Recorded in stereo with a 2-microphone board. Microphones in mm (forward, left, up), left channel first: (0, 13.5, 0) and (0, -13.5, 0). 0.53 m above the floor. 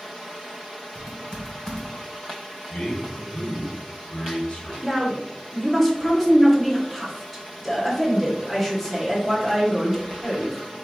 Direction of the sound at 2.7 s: 55° left (ahead or behind).